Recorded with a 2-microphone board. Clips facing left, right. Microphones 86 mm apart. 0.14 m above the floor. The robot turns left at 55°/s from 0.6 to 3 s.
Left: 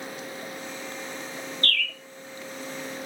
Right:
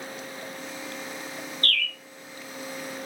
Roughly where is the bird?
Left.